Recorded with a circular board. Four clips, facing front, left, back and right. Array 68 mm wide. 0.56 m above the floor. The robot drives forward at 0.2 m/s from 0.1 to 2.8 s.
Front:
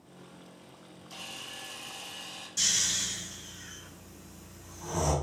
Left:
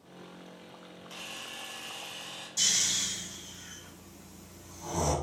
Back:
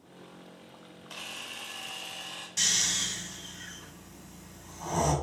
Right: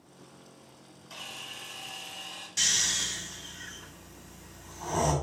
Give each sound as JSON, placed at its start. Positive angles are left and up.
{"t": 1.1, "sound": "a camera shutter", "azimuth_deg": 180, "distance_m": 1.2}
{"t": 2.6, "sound": "snoring", "azimuth_deg": -130, "distance_m": 1.2}